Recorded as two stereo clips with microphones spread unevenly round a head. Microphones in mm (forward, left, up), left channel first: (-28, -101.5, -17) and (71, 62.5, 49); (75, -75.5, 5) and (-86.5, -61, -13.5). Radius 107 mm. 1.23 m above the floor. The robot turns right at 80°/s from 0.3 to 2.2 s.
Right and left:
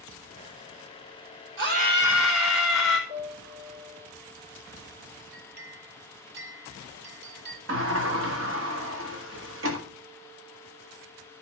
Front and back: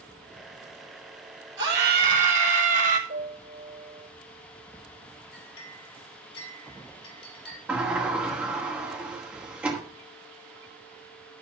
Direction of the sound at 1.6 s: 100° left.